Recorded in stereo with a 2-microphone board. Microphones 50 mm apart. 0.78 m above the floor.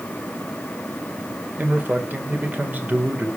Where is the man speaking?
40° right (ahead or behind), 2 m.